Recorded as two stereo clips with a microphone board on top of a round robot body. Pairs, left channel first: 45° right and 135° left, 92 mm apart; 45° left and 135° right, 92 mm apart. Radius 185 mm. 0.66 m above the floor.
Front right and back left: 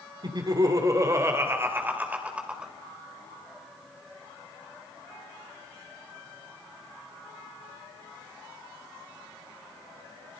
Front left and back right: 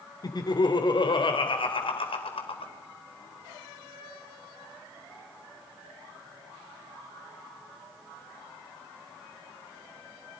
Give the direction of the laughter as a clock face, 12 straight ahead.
9 o'clock.